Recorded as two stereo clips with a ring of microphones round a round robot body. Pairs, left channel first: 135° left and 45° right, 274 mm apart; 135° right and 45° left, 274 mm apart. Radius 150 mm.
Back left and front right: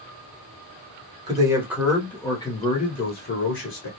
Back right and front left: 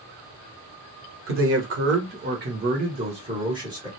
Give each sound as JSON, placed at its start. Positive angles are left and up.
{"t": 1.3, "sound": "a man speaking", "azimuth_deg": 25, "distance_m": 1.3}